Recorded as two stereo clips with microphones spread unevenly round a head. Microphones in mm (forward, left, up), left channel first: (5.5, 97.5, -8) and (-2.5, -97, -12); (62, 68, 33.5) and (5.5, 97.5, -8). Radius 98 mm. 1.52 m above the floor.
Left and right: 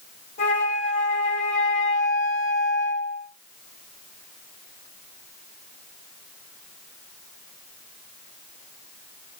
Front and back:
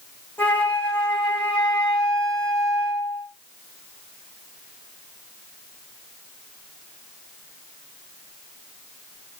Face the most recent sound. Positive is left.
turn(degrees=30)